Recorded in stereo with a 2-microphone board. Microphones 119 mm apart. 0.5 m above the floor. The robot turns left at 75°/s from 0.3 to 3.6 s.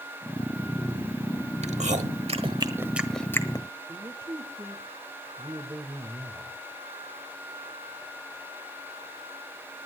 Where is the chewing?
65° right (ahead or behind), 1.2 m; by 3.7 s 35° left (ahead or behind), 1.2 m.